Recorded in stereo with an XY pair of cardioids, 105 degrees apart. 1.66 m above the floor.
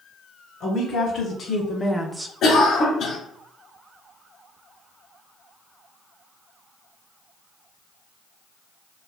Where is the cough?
60° left, 0.8 m.